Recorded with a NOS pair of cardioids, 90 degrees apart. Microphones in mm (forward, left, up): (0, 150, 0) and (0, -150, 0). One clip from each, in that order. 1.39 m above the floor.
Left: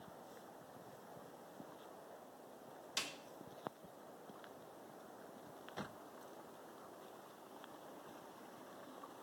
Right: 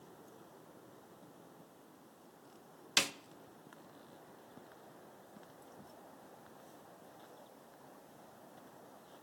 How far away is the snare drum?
About 0.6 m.